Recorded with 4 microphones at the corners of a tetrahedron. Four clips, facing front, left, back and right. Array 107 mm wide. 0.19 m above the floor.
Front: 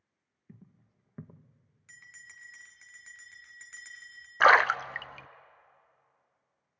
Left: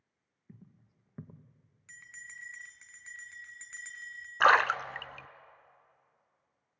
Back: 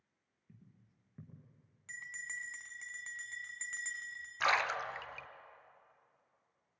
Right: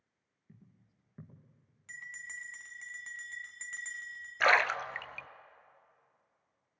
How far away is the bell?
About 1.5 m.